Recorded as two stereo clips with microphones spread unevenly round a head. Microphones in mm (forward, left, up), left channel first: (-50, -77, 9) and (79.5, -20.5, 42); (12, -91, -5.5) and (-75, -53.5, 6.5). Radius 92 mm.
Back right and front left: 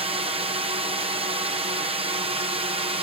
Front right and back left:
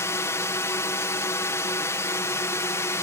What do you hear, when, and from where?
0.0 s a drone: 5° right